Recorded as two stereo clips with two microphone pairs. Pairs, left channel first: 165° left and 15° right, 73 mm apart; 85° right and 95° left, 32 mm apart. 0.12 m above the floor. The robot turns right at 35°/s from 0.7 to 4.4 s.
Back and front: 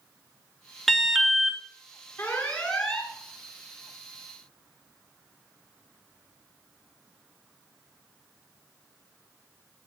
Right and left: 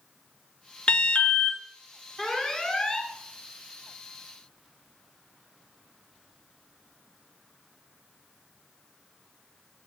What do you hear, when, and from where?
0.9 s an alarm: 110° right, 0.9 m; by 1.6 s 85° right, 0.9 m
2.2 s an alarm: 150° right, 1.6 m; by 3.1 s 115° right, 1.6 m